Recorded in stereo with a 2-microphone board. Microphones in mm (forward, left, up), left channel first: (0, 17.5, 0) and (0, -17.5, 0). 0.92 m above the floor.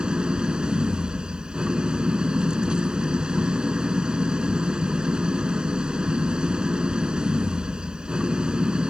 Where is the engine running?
25° right (ahead or behind).